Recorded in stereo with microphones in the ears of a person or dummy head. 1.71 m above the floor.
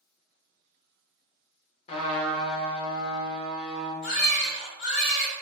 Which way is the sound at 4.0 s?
50° left (ahead or behind).